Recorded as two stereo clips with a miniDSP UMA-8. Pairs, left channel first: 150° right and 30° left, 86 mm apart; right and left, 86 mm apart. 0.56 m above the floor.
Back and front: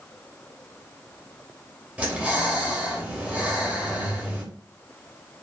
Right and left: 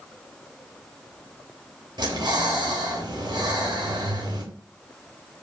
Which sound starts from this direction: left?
Breathing, at 2.0 s.